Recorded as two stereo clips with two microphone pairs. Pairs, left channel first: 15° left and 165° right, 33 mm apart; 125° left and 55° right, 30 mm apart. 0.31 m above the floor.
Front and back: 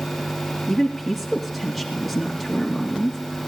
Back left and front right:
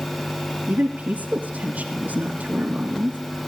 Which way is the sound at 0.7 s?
75° right.